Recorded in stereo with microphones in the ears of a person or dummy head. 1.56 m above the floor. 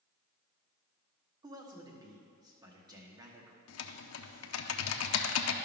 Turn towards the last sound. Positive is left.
turn(degrees=75)  # may be behind; listen again after turning